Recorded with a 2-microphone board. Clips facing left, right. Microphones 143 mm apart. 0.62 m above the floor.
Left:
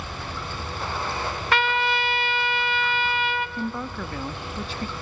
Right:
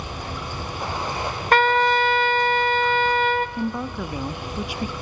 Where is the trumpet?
45° right (ahead or behind), 0.7 m.